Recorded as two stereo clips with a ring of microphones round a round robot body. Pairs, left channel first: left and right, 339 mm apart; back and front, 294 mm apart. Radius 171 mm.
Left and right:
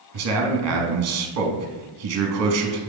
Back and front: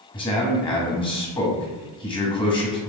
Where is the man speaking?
110° right, 0.8 m.